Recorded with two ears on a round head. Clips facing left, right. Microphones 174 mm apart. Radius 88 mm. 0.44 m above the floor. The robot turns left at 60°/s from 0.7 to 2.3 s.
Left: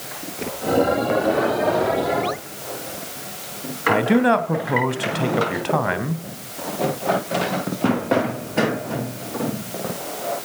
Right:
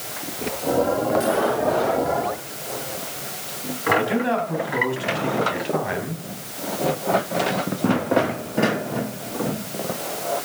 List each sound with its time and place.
3.9 s a man speaking: 65° left (ahead or behind), 2.5 m